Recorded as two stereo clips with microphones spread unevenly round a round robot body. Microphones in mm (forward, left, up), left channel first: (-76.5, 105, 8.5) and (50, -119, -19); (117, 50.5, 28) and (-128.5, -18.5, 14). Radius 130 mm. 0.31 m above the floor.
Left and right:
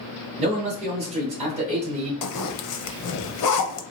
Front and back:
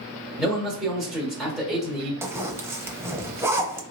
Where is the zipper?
120° left, 0.6 m.